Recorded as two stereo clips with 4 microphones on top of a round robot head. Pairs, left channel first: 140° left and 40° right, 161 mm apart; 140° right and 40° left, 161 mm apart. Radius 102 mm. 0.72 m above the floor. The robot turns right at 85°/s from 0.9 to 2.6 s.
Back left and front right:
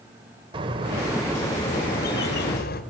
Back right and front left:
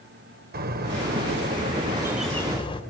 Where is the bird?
15° left, 2.5 m; by 2.8 s 160° left, 2.5 m.